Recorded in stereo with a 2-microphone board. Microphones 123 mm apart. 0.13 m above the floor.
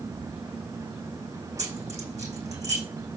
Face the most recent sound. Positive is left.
turn(degrees=-70)  # may be behind; listen again after turning